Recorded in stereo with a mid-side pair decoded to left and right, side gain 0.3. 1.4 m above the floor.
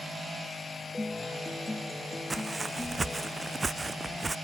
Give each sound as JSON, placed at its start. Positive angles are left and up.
{"t": 0.9, "sound": "a guitar", "azimuth_deg": 20}
{"t": 2.3, "sound": "footsteps", "azimuth_deg": -40}